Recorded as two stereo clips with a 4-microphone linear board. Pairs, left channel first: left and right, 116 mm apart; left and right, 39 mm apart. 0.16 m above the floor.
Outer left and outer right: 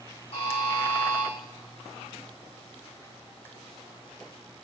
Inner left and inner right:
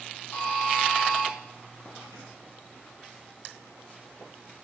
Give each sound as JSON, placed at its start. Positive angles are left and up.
{"t": 0.3, "sound": "a buzzer", "side_deg": 55, "distance_m": 7.0}